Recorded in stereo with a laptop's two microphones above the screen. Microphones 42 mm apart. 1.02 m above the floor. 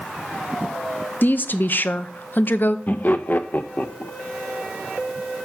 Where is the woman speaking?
50° left (ahead or behind), 0.7 m.